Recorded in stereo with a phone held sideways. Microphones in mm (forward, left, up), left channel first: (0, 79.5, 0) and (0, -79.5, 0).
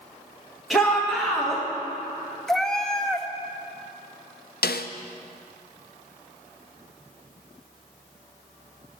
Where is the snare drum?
75° left (ahead or behind), 0.5 m.